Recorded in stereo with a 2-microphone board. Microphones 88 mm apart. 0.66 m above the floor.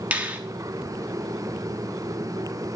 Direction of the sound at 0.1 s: 15° right (ahead or behind).